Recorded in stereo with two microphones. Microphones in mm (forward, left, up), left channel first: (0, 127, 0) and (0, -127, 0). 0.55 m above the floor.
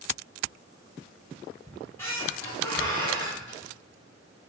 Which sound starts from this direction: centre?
A squeak, at 1.7 s.